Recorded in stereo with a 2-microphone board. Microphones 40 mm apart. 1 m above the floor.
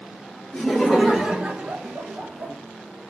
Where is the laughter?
5° left (ahead or behind), 1.7 m; by 2.5 s 55° right (ahead or behind), 1.1 m.